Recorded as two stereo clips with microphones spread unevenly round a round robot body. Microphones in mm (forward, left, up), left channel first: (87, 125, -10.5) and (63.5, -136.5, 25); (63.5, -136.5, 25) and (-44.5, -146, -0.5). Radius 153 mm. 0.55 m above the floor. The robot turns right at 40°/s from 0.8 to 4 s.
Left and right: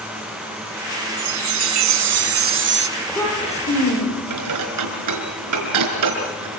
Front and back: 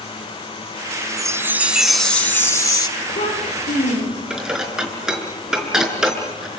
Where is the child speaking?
5° right, 9 m; by 4.2 s 35° left, 9 m.